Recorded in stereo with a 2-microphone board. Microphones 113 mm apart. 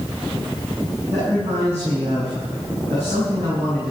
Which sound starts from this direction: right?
A man speaking, at 1.1 s.